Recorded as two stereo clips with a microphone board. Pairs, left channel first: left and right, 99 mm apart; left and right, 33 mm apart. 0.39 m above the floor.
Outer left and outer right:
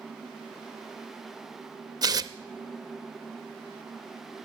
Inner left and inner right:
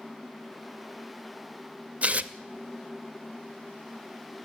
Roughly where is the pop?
I don't hear a pop.